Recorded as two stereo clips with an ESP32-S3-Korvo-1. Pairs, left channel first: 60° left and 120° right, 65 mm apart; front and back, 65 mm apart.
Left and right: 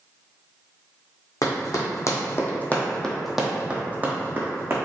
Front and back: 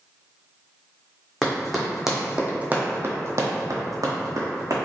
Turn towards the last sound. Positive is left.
turn(degrees=-165)